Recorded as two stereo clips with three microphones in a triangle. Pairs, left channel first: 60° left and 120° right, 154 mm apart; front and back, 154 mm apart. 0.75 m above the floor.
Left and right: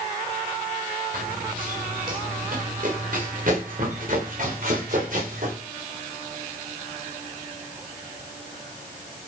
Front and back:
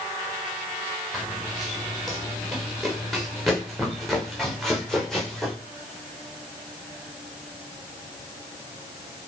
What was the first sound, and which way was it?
Running footsteps, 90° right.